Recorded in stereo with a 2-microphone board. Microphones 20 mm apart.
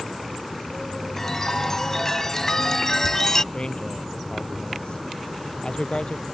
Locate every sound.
1.2 s a chime: 20° left (ahead or behind)
3.5 s a man speaking: 45° left (ahead or behind)